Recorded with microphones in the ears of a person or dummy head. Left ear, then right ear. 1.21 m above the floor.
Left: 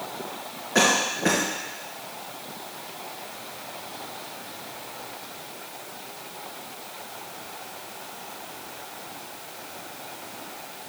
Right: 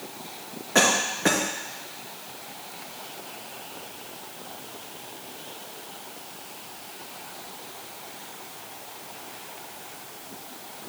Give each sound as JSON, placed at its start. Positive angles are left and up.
{"t": 0.8, "sound": "a cough", "side_deg": -15, "distance_m": 1.0}